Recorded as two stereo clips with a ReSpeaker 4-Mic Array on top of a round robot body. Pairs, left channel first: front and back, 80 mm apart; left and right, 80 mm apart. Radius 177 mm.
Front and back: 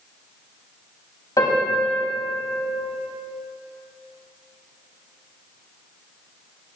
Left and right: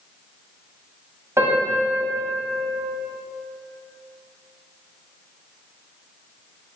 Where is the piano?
40° right, 3.5 m.